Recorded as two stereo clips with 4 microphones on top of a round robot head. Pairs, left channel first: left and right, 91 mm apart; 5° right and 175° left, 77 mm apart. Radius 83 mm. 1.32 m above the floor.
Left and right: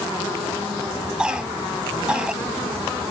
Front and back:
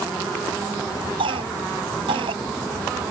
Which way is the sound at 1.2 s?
170° right.